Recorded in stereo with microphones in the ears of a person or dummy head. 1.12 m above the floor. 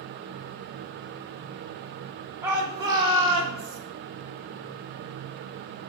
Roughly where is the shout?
Centre.